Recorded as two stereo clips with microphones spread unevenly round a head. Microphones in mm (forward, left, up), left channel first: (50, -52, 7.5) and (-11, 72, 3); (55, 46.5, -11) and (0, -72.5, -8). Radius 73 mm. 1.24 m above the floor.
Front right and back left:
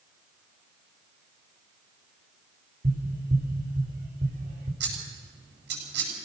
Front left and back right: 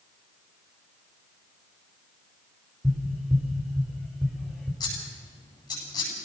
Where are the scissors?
130° left, 9.5 m.